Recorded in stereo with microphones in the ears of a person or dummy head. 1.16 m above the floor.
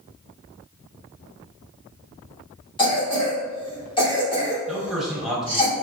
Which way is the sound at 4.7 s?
5° right (ahead or behind).